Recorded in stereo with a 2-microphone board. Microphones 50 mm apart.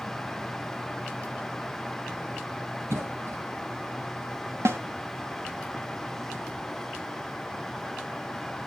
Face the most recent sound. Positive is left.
turn(degrees=-60)  # may be behind; listen again after turning